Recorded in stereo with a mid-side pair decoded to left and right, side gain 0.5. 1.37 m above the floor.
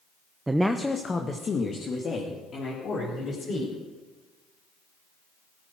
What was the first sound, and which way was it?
A woman speaking, 20° right.